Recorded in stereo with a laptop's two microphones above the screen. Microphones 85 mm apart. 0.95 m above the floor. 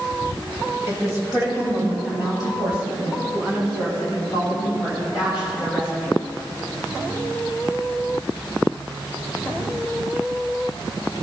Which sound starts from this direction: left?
A woman speaking, at 0.9 s.